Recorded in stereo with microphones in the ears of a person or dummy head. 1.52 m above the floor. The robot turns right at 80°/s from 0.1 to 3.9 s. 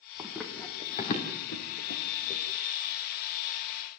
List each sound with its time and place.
0.2 s running footsteps: 15° right (ahead or behind), 4 m; by 2.4 s 35° left (ahead or behind), 4 m